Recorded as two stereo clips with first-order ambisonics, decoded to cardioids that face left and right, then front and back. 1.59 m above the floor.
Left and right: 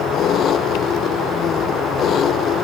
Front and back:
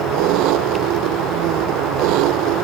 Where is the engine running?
150° left.